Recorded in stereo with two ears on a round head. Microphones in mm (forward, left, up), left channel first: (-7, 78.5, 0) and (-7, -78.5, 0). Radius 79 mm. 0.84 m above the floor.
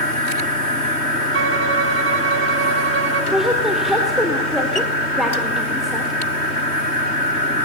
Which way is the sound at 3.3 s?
Centre (ahead or behind).